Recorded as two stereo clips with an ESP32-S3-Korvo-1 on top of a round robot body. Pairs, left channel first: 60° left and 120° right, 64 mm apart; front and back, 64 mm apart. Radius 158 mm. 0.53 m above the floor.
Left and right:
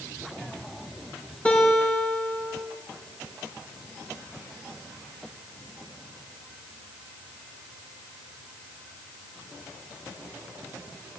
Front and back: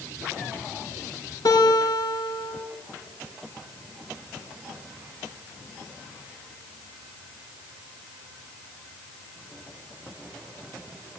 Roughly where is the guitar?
Ahead.